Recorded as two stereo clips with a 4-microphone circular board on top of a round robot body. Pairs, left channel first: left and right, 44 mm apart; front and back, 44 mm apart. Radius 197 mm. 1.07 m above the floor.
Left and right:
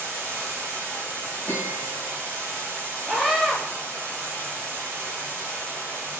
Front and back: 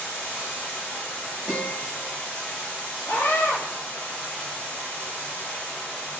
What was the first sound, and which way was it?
Running water, 65° right.